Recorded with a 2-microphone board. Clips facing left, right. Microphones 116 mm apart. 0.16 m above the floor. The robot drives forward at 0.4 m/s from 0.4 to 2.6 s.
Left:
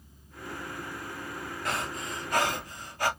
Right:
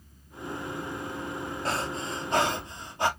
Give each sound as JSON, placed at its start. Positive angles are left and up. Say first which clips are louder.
{"t": 1.6, "sound": "breathing", "louder": "right 2 dB", "side_deg": -30, "distance_m": 1.1}